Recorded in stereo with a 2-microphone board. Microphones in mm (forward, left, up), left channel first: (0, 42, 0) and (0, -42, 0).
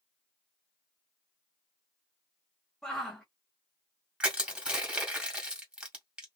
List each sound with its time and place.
2.8 s a shout: 10° left (ahead or behind), 1.1 m
4.2 s crushing: 15° right (ahead or behind), 1.6 m